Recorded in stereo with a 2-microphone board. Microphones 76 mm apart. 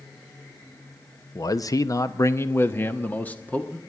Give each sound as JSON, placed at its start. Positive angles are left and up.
{"t": 1.4, "sound": "a man speaking", "side_deg": 50, "distance_m": 0.7}